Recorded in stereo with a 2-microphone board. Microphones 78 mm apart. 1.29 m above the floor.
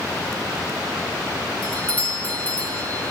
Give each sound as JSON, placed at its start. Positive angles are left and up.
{"t": 1.6, "sound": "a doorbell", "side_deg": 20, "distance_m": 2.0}